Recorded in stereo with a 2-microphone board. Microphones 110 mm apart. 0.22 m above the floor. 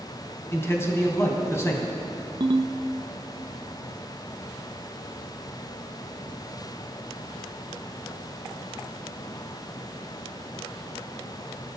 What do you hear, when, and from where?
0.5 s a man speaking: 25° left (ahead or behind), 1.8 m
2.4 s a ringtone: 55° right (ahead or behind), 0.6 m